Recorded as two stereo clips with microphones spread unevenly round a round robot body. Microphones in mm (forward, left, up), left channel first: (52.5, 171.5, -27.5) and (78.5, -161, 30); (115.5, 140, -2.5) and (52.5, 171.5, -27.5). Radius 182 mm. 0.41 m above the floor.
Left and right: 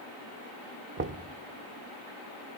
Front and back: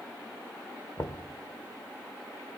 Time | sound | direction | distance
1.0 | knocking | 65° right | 0.9 m